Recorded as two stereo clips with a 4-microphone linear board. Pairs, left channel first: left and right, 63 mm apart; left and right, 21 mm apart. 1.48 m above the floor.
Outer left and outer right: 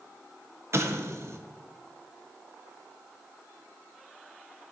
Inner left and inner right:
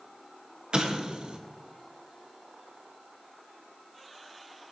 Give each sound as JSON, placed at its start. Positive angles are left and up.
{"t": 0.7, "sound": "an explosion", "side_deg": -45, "distance_m": 0.6}